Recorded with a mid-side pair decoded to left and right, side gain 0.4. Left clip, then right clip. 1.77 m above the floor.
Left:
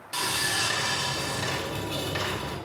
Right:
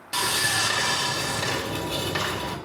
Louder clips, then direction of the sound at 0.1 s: Right 3 dB; 40° right.